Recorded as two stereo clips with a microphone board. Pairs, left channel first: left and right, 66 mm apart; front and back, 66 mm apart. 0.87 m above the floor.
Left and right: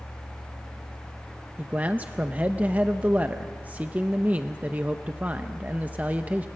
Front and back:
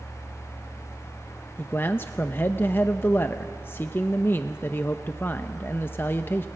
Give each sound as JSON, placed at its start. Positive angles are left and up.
{"t": 1.6, "sound": "a man speaking", "azimuth_deg": -35, "distance_m": 0.6}